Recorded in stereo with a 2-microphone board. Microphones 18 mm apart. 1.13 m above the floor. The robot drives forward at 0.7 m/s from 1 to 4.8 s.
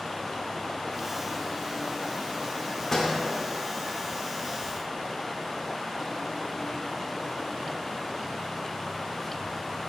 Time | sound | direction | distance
2.9 | a door slam | 20° left (ahead or behind) | 2.0 m